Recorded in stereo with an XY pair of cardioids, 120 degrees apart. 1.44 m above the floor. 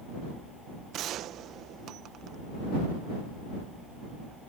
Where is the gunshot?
65° right.